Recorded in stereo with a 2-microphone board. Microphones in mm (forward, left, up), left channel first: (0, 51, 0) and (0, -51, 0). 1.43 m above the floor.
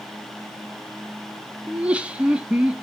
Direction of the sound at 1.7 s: 10° right (ahead or behind).